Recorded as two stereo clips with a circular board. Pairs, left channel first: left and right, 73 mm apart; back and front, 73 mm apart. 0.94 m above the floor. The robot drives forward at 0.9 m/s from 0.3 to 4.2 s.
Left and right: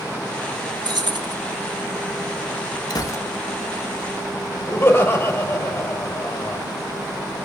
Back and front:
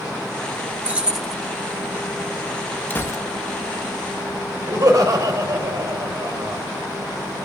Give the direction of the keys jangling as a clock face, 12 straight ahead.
2 o'clock.